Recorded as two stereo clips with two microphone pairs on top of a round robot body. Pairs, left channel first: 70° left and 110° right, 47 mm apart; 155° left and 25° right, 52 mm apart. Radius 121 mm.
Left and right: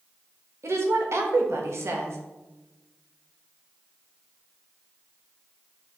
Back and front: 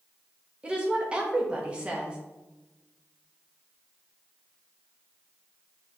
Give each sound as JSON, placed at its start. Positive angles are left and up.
{"t": 0.6, "sound": "a woman speaking", "azimuth_deg": -95, "distance_m": 1.0}